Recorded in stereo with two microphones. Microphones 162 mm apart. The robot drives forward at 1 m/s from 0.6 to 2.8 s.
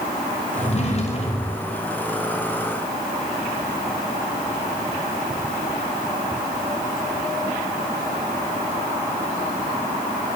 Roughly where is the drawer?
Left.